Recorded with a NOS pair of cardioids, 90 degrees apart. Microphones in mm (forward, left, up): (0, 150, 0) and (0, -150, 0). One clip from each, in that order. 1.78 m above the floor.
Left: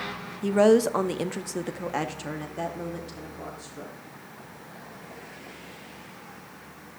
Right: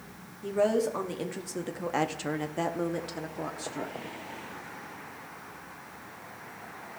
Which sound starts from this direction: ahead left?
A woman speaking, at 0.4 s.